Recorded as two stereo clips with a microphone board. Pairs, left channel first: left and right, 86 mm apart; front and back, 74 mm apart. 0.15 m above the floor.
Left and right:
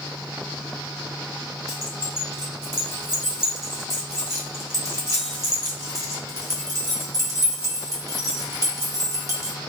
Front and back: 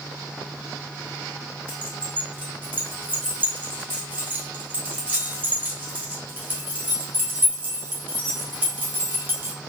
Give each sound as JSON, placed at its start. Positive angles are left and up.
{"t": 1.7, "sound": "keys jangling", "azimuth_deg": -120, "distance_m": 1.2}